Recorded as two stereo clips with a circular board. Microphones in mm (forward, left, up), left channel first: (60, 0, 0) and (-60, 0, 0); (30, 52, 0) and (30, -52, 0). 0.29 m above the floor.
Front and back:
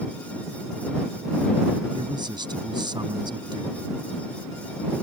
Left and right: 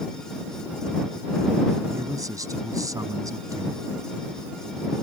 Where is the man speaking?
140° right.